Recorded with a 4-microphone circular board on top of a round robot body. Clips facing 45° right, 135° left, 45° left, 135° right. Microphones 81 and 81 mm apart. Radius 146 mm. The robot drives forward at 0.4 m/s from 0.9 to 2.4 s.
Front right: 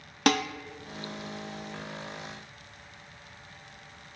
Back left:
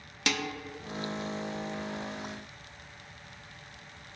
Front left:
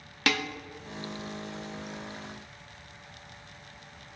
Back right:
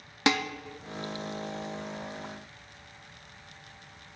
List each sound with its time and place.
0.3 s dishes clattering: 70° right, 0.7 m